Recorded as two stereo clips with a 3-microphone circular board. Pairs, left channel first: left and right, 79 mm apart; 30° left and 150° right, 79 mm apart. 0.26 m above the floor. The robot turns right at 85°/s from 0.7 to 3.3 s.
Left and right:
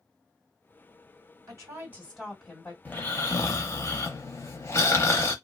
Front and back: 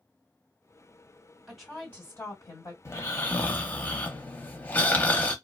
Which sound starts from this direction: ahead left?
Snoring, at 2.9 s.